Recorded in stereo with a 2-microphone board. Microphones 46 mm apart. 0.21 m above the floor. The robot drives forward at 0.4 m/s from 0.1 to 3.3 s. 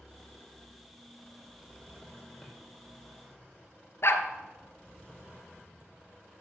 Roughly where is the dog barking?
Left.